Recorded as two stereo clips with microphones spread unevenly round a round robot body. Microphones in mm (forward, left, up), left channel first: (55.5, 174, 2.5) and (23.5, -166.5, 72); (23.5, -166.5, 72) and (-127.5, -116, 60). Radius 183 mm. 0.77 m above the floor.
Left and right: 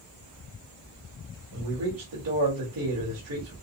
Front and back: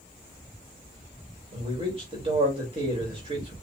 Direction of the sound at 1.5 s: 150° right.